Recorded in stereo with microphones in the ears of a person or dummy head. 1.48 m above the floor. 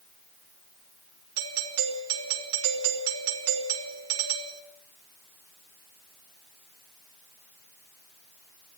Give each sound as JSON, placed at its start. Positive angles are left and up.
{"t": 1.4, "sound": "a doorbell", "side_deg": -85, "distance_m": 4.5}